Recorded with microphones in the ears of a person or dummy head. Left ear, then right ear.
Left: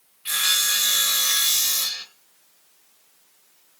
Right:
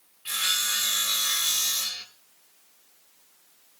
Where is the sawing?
10° left (ahead or behind), 1.8 m.